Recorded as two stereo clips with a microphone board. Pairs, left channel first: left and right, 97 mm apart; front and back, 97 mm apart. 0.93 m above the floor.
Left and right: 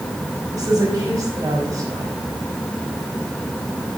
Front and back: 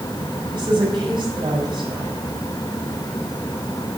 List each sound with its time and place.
0.5 s a woman speaking: 145° right, 5 m